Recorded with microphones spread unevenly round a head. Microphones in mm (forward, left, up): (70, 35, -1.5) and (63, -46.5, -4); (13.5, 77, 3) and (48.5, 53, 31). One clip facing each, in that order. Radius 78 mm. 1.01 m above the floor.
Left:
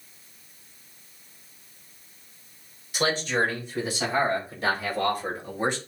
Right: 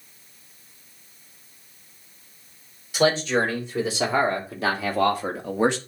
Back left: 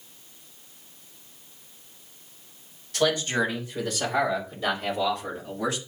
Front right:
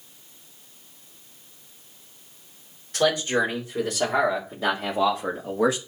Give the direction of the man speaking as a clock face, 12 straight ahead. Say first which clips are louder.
Right 5 dB, front right 2 dB; 4 o'clock.